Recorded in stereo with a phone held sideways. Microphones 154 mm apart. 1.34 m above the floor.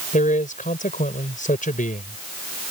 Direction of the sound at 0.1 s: 60° left (ahead or behind).